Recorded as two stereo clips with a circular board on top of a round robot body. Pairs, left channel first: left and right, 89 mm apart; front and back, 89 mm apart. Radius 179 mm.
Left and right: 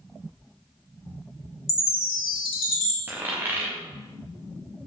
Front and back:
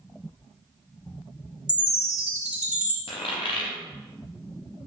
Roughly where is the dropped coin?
Ahead.